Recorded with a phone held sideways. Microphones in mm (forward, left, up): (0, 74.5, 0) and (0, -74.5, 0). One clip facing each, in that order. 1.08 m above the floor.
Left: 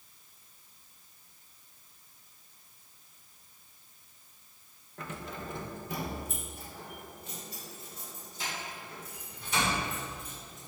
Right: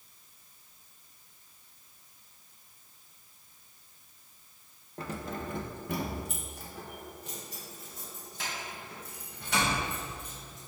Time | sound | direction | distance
5.0 | keys jangling | 30° right (ahead or behind) | 0.7 m